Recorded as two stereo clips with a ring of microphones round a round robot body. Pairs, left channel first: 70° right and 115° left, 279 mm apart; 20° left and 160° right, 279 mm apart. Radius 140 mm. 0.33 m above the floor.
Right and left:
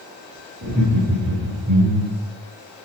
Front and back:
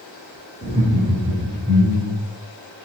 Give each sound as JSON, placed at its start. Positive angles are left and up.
{"t": 0.6, "sound": "laughter", "azimuth_deg": 150, "distance_m": 3.0}